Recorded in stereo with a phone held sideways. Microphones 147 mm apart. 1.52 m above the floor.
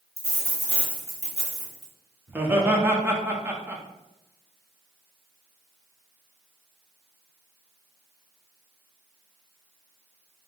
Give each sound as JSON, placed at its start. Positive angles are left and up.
{"t": 0.2, "sound": "a dropped coin", "side_deg": 45, "distance_m": 1.1}
{"t": 2.3, "sound": "laughter", "side_deg": -15, "distance_m": 1.0}